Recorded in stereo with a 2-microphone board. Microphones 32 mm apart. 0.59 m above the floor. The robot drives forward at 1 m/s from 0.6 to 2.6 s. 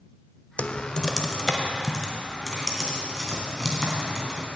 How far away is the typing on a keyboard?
About 0.5 m.